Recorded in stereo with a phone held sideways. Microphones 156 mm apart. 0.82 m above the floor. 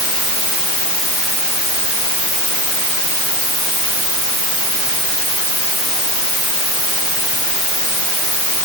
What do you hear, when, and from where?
Only background noise.